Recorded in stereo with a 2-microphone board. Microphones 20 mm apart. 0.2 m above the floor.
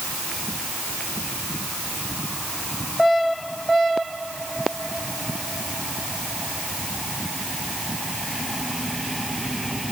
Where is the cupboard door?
No cupboard door in this recording.